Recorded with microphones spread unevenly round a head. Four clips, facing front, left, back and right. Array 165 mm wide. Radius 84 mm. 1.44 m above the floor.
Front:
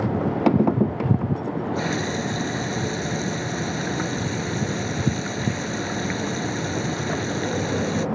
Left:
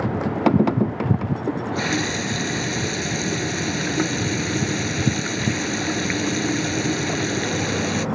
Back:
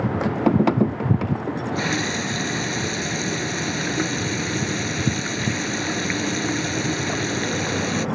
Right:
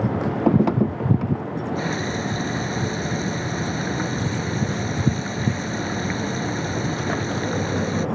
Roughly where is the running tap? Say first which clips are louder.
Left 2 dB, even; behind left.